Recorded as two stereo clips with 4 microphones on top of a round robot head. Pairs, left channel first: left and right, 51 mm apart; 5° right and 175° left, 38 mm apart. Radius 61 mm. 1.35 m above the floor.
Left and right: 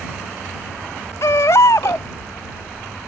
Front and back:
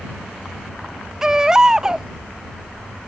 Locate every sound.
1.2 s a baby crying: 105° left